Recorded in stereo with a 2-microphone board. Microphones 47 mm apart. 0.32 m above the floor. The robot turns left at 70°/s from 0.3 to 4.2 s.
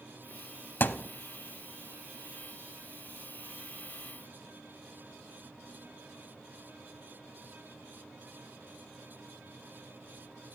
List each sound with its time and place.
0.8 s a thud: 45° left (ahead or behind), 0.6 m; by 1.1 s 25° left (ahead or behind), 0.6 m